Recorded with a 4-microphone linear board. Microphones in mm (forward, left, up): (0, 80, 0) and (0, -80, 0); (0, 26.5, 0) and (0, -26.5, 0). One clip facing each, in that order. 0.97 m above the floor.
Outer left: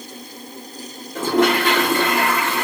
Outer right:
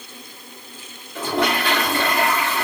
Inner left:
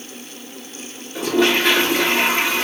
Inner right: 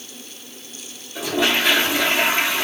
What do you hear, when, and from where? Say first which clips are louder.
1.1 s a toilet flushing: outer left 5 dB, inner left 3 dB; 45° left (ahead or behind), 2 m